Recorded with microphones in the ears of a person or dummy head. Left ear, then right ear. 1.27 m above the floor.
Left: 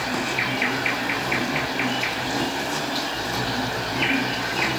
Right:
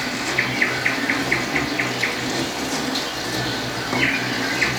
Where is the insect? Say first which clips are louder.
Right 2 dB; 80° right, 4 m.